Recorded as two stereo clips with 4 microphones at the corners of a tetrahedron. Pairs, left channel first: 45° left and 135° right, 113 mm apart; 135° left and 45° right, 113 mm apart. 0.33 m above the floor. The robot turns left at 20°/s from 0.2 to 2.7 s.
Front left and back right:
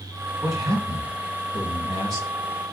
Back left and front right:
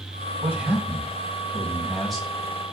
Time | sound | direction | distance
0.4 | a man speaking | 105° right | 1.4 m